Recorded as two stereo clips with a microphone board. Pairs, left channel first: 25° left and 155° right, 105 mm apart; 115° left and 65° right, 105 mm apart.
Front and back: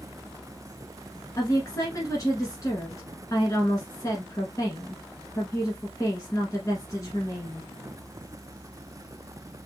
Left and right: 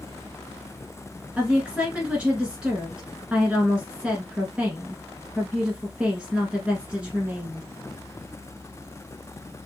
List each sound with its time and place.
1.4 s a woman speaking: 5° left, 1.2 m